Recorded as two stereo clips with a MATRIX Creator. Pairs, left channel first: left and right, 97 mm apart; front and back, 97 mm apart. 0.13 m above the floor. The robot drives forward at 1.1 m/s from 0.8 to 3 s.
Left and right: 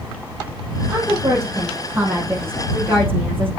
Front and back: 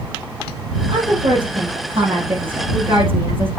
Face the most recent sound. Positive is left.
turn(degrees=-160)